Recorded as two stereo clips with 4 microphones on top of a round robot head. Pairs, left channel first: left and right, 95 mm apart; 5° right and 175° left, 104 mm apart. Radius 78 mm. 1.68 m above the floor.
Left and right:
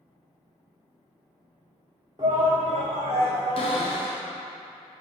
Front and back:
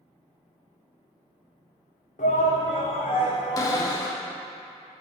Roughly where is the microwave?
No microwave in this recording.